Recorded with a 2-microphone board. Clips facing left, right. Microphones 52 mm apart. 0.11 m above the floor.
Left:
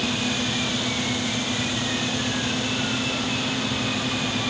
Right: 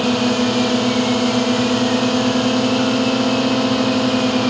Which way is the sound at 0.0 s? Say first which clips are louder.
Right 9 dB; 60° right (ahead or behind).